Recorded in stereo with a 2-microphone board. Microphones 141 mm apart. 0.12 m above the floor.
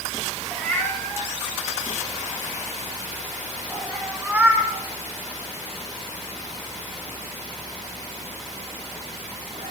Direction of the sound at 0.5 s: 10° left (ahead or behind).